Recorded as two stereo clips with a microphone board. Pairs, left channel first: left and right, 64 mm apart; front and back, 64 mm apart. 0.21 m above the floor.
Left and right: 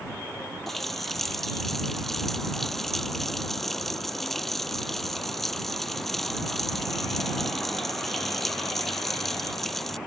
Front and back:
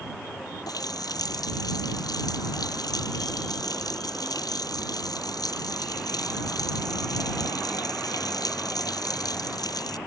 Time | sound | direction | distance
0.7 | a running tap | 5° left | ?